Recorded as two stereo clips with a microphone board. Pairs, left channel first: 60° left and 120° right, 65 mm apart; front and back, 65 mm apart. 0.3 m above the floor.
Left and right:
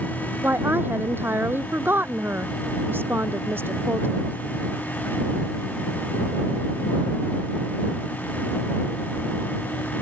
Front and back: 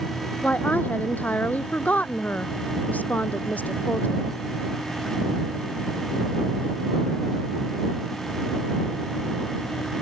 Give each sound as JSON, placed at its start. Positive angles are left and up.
{"t": 0.4, "sound": "a woman speaking", "azimuth_deg": -65}